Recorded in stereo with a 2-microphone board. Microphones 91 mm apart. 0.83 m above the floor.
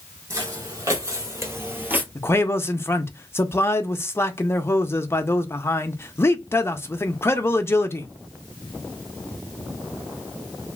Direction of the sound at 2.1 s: 30° left (ahead or behind).